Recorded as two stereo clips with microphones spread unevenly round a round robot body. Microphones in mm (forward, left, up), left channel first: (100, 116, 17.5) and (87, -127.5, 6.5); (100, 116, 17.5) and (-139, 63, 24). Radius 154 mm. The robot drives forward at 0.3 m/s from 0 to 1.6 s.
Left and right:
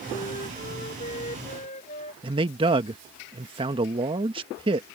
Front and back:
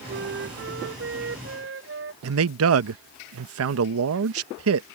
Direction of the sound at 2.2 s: 160° right.